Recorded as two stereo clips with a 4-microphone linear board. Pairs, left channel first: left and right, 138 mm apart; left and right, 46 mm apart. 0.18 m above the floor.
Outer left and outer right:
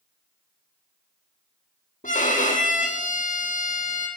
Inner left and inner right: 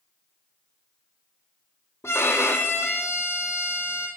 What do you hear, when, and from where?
2.0 s a violin: 70° left (ahead or behind), 1.4 m